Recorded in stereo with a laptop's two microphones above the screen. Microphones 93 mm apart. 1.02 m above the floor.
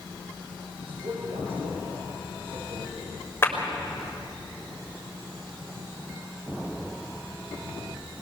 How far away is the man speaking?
About 5 m.